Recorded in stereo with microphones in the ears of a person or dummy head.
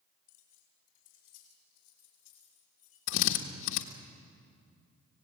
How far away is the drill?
About 1.5 m.